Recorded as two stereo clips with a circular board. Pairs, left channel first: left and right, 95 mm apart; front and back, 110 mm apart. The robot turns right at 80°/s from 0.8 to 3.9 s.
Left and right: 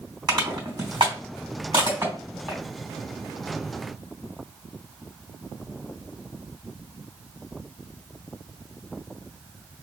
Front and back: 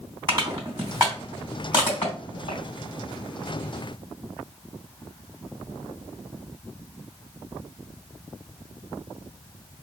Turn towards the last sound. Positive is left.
turn(degrees=120)